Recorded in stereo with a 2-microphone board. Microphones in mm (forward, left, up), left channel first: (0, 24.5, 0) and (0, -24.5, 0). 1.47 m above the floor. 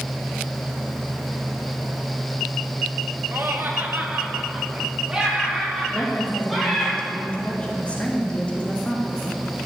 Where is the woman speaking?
25° left (ahead or behind), 3 m.